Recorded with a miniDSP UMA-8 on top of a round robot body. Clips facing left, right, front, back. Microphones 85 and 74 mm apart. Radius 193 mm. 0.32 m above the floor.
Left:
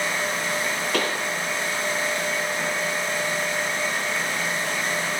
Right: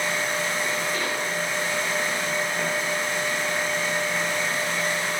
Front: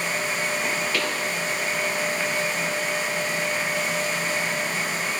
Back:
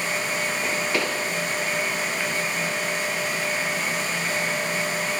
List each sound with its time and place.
0.9 s a pop: 110° left, 4.5 m